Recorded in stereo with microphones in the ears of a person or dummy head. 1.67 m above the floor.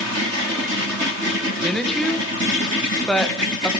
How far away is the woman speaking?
About 1.6 m.